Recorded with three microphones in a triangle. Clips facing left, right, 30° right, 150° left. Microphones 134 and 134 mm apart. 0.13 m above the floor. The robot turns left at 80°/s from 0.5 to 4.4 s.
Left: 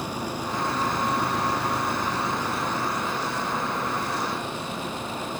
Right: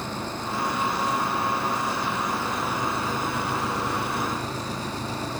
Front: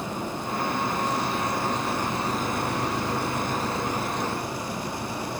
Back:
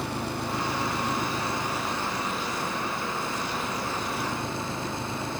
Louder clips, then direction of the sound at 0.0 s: Left 1 dB, even; 170° left.